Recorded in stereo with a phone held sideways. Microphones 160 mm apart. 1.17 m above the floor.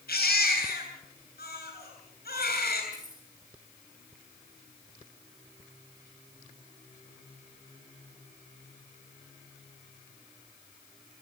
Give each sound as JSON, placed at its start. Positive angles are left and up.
{"t": 0.1, "sound": "a baby crying", "side_deg": 75, "distance_m": 8.5}
{"t": 2.9, "sound": "keys jangling", "side_deg": -50, "distance_m": 10.0}